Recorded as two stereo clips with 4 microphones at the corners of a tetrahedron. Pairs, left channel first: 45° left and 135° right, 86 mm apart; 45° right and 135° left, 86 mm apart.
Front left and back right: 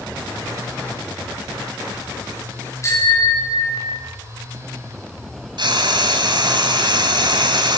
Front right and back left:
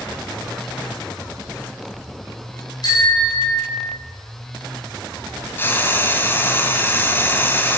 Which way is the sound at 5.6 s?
110° right.